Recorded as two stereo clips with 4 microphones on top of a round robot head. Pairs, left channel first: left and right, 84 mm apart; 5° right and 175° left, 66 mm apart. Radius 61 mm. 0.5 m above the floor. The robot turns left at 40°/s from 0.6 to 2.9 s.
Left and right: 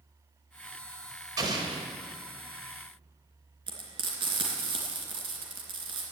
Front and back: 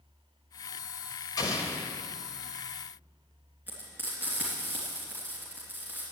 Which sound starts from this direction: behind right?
Frying, at 3.7 s.